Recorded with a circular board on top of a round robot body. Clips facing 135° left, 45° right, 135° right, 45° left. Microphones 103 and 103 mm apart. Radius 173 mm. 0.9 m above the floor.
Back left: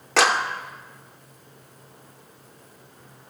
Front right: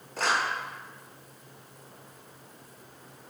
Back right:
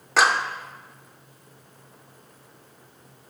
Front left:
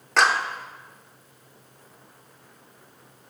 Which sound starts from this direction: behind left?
A clap, at 0.2 s.